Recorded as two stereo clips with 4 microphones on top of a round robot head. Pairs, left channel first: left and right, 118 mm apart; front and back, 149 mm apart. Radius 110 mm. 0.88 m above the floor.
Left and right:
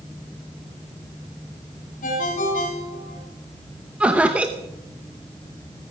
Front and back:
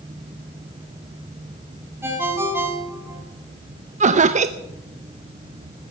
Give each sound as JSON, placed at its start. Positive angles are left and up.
{"t": 2.0, "sound": "a ringtone", "azimuth_deg": 105, "distance_m": 3.0}
{"t": 4.0, "sound": "laughter", "azimuth_deg": -170, "distance_m": 0.7}